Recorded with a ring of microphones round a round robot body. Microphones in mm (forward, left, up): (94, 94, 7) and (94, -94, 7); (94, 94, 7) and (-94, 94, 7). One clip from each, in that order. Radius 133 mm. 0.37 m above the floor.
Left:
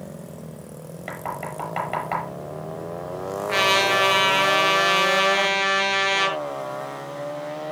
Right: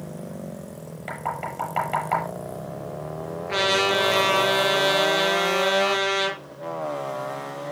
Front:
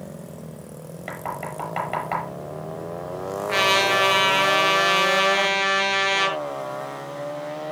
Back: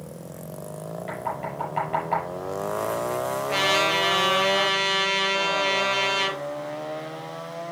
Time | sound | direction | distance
1.1 | knocking | 15° left | 8 m
3.5 | a trumpet | 45° left | 5 m